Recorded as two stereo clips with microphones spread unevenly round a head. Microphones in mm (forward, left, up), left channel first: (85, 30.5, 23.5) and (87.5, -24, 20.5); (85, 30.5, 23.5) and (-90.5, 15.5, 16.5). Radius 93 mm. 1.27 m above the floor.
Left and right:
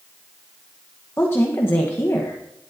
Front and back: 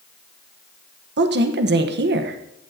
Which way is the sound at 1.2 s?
160° left.